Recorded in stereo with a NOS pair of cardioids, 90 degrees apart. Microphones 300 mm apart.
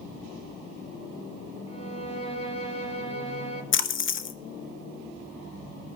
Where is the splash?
45° left, 0.9 m.